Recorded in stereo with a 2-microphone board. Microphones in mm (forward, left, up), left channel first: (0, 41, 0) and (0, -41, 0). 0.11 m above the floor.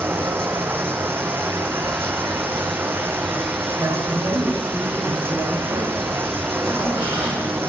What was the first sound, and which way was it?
Running water, 25° right (ahead or behind).